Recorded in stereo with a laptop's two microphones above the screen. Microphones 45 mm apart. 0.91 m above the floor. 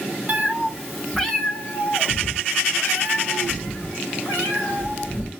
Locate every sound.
0.3 s a cat meowing: 30° right (ahead or behind), 0.8 m; by 5.3 s 65° left (ahead or behind), 2.5 m